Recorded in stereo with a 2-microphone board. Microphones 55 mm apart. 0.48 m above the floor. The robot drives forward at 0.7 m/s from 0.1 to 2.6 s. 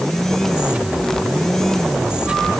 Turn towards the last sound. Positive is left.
No sound to turn to.